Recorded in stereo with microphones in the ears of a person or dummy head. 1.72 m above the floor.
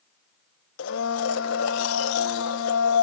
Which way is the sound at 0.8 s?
75° left (ahead or behind).